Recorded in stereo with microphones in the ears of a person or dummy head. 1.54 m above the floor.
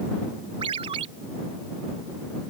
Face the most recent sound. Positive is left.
turn(degrees=-30)  # may be behind; listen again after turning